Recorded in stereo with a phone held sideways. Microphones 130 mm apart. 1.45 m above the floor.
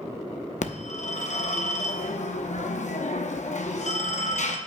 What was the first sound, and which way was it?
A phone ringing, 65° left (ahead or behind).